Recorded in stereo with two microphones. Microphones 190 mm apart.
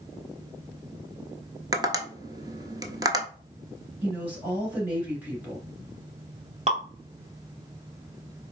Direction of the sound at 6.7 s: 35° right (ahead or behind).